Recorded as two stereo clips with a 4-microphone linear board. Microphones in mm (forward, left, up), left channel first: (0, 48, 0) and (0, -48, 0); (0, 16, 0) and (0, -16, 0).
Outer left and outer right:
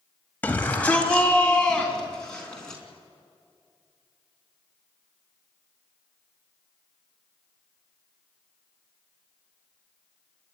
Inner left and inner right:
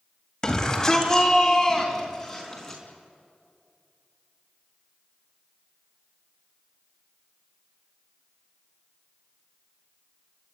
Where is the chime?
I don't hear a chime.